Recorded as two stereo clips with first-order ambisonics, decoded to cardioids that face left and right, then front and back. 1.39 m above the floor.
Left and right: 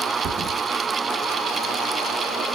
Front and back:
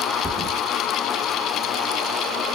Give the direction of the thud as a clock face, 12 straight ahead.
3 o'clock.